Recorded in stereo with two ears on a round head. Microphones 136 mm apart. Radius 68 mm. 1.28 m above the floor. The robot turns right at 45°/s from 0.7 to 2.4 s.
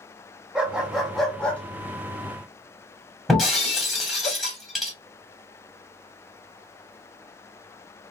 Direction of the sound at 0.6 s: 5° right (ahead or behind).